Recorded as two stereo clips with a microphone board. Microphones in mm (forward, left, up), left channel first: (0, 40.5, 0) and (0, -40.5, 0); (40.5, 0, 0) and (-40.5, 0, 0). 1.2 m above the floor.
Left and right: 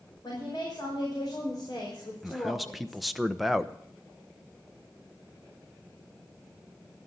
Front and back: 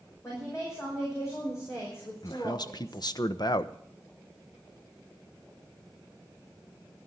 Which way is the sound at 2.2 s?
Straight ahead.